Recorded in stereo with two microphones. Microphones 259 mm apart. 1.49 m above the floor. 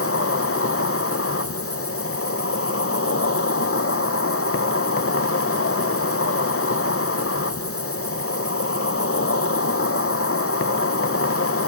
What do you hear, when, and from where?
0.0 s an insect: 55° left (ahead or behind), 0.8 m